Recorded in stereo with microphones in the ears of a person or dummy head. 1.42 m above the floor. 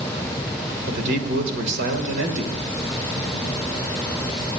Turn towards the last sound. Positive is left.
turn(degrees=-65)  # may be behind; listen again after turning